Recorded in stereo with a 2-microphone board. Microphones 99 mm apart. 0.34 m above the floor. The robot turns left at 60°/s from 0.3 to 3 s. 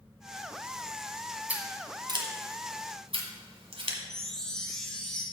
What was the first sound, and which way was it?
Scissors, 15° right (ahead or behind).